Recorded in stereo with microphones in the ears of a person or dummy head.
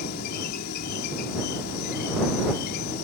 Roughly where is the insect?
Left.